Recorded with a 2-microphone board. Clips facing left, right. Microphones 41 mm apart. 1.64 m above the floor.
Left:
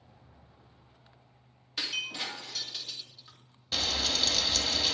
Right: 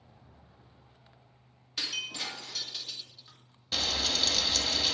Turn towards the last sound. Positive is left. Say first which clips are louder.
# even
turn(degrees=0)  # may be behind; listen again after turning